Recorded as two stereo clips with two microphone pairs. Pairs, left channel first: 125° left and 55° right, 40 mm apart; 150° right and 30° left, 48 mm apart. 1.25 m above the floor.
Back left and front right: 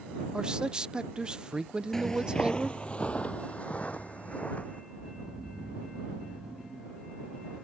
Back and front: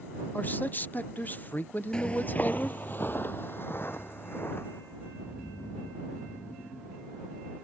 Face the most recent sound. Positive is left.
turn(degrees=-125)